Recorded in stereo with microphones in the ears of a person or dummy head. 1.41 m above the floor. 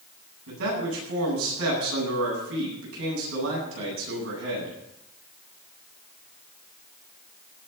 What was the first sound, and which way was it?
A man speaking, 75° right (ahead or behind).